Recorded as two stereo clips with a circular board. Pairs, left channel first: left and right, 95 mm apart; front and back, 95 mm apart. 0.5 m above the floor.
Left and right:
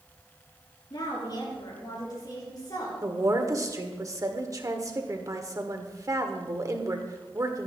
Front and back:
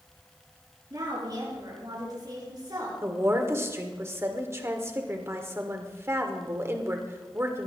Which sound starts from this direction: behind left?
A woman speaking, at 0.9 s.